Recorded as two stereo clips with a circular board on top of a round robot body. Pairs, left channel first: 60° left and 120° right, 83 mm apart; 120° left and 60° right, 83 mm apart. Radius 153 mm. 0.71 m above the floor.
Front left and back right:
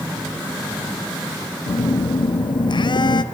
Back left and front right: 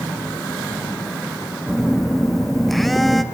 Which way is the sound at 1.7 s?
30° left.